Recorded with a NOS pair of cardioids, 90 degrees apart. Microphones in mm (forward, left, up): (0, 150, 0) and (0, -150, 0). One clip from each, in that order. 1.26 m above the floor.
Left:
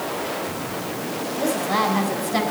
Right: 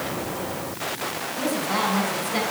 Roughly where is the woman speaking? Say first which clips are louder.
Left 3 dB; ahead left.